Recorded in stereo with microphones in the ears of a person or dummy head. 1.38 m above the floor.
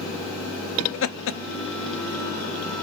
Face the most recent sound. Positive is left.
turn(degrees=60)  # may be behind; listen again after turning